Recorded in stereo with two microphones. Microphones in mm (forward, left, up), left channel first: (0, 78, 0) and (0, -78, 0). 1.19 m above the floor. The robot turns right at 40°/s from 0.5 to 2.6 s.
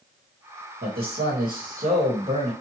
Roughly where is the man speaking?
Right.